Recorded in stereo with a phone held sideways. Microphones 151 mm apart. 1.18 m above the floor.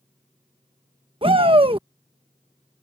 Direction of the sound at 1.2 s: 40° right (ahead or behind).